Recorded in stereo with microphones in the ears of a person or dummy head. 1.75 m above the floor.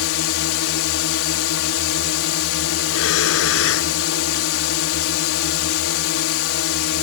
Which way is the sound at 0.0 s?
70° left (ahead or behind).